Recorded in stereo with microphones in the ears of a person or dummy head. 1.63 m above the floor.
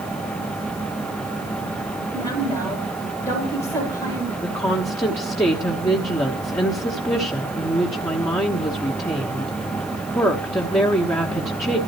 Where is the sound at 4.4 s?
15° left (ahead or behind), 1.1 m.